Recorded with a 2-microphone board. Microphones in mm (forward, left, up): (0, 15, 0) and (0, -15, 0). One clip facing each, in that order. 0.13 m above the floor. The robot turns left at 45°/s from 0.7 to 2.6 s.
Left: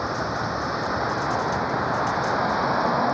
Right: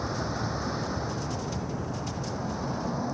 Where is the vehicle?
145° left; by 3.1 s 60° left.